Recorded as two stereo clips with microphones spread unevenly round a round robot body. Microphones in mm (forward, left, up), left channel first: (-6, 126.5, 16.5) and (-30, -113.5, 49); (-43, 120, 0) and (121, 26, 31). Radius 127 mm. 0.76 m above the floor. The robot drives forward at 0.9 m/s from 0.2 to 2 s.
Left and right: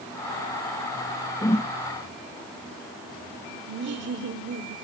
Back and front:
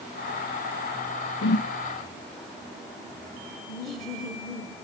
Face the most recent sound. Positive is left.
turn(degrees=-135)